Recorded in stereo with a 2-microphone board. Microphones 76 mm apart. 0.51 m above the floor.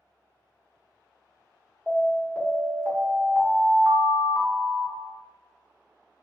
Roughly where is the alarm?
Centre.